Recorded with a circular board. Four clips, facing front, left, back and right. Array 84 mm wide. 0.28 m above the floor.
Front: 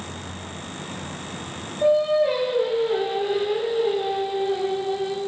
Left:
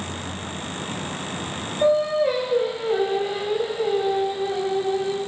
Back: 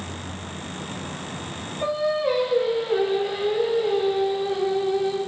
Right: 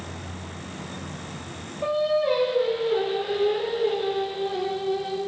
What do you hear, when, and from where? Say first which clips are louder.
1.8 s singing: left 4 dB, front 5 dB; 85° left, 4.5 m